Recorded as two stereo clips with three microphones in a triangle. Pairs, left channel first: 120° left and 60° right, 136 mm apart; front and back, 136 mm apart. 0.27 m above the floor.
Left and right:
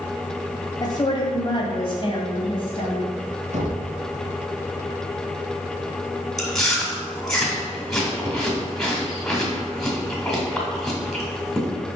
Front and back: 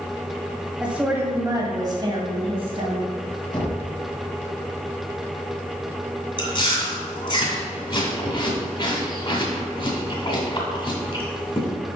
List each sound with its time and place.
0.8 s a woman speaking: 100° left, 1.4 m; by 3.1 s 160° left, 2 m
3.5 s knocking: 50° right, 2 m
6.4 s chewing: 35° left, 1.7 m